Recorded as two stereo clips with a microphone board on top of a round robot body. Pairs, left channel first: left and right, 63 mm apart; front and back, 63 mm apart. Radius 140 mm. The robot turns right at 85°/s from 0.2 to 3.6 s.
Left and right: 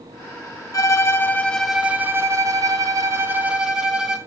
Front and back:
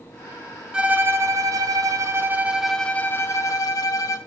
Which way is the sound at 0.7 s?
105° left.